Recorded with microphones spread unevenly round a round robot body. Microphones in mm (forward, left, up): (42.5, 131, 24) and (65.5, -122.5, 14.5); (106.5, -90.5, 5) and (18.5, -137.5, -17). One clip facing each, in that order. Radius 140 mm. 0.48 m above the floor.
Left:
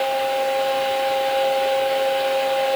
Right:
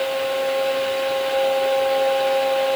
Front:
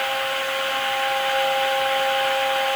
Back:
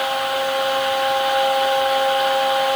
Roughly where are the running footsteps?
I don't hear running footsteps.